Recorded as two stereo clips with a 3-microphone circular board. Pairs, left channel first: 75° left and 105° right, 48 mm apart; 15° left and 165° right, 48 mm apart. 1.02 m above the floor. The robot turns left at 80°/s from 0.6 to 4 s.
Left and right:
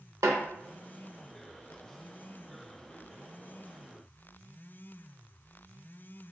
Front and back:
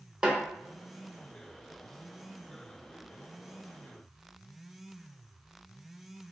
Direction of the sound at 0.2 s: 95° right.